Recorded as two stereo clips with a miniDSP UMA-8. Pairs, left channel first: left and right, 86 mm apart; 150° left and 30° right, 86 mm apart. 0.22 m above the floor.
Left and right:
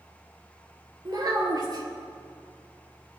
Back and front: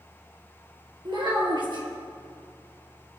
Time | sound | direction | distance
1.1 | a child speaking | 50° right | 2.5 m